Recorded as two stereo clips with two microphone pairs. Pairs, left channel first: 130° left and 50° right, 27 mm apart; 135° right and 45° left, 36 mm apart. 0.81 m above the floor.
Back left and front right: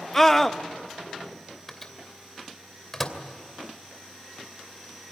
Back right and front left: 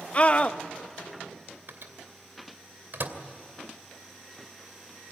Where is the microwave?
50° left, 2.5 m.